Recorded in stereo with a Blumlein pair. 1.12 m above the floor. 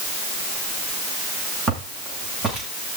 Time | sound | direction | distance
1.7 | footsteps | 20° right | 9 m